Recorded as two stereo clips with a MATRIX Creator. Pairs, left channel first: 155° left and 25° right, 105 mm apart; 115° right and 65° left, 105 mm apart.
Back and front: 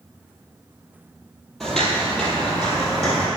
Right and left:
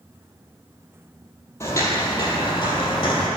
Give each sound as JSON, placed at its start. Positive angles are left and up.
{"t": 1.6, "sound": "footsteps", "azimuth_deg": -120, "distance_m": 1.4}